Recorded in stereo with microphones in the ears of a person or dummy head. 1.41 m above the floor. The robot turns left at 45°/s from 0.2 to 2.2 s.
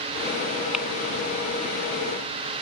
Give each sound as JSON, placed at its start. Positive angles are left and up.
{"t": 0.7, "sound": "crumpling", "side_deg": -5}